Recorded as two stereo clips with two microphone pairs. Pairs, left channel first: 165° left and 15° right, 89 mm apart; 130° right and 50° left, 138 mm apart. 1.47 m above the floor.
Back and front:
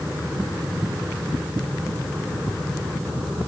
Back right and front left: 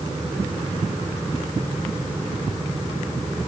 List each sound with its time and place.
Only background noise.